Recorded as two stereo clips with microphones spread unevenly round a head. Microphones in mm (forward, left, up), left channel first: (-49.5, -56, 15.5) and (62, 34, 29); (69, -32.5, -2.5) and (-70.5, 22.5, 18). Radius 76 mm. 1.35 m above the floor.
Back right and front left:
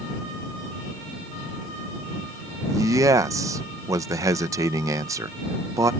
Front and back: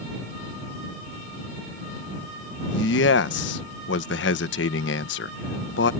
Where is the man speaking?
30° right.